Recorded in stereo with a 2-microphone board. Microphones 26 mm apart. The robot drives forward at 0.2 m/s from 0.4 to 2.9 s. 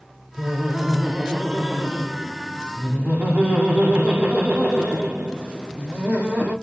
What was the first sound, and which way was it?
Laughter, 90° right.